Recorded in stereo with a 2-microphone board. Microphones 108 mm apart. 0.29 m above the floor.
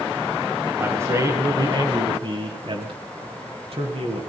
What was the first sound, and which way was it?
A man speaking, 20° right (ahead or behind).